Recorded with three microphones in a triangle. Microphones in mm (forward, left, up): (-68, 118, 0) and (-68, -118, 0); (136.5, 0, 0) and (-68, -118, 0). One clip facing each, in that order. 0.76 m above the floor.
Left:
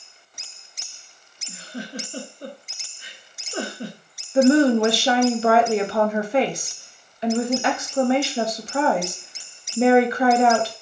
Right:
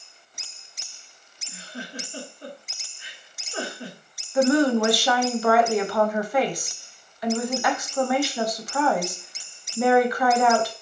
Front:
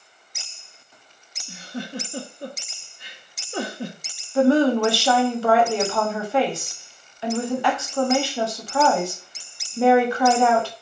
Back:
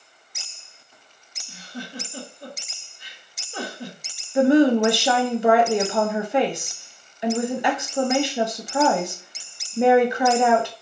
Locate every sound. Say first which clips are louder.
1.5 s a giggle: left 4 dB, front 4 dB; 50° left, 0.8 m
4.3 s a woman speaking: left 4 dB, back 1 dB; 145° left, 0.7 m